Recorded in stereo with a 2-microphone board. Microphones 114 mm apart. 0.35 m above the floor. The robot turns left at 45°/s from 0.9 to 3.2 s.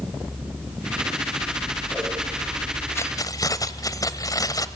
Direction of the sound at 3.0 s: 25° left (ahead or behind).